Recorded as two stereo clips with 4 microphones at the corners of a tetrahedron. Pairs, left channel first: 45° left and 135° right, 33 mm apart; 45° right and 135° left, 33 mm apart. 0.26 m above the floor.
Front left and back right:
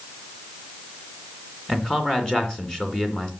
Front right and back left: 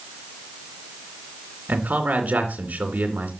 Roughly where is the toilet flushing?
No toilet flushing in this recording.